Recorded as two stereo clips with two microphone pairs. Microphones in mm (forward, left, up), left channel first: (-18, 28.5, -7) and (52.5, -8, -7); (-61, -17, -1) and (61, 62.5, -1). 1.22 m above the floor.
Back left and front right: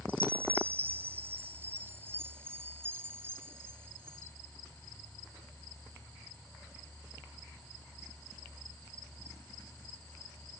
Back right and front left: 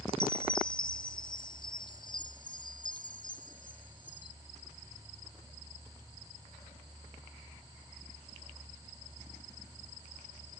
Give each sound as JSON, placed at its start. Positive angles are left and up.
{"t": 0.1, "sound": "a chime", "azimuth_deg": -90}